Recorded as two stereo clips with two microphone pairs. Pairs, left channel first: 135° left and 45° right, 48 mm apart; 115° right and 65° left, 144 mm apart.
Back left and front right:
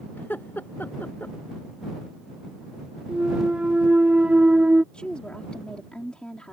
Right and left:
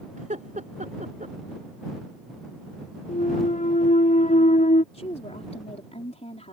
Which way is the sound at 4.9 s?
155° right.